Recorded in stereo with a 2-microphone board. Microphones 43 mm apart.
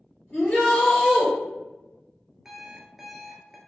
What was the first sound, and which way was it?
A shout, 20° left (ahead or behind).